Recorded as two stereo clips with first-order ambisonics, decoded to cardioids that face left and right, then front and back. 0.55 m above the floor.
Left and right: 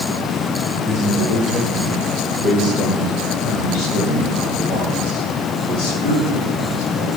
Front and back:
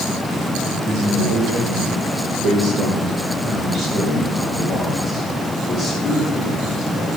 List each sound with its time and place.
0.9 s a man speaking: 165° left, 2.5 m; by 7.1 s 105° left, 5 m